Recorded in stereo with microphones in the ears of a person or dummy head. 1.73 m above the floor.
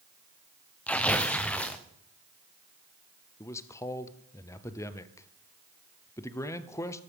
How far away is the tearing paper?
About 0.7 m.